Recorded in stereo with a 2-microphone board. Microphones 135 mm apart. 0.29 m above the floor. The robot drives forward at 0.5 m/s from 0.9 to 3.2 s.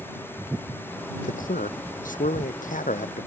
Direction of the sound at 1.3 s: 80° left.